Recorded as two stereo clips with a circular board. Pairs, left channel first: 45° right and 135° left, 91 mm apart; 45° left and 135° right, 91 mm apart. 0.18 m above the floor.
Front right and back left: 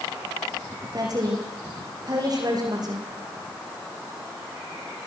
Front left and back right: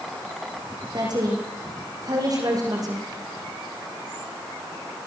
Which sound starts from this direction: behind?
A woman speaking, at 0.9 s.